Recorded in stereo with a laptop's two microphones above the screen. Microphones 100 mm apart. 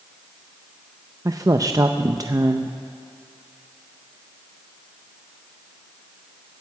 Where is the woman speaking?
35° right (ahead or behind), 0.6 m.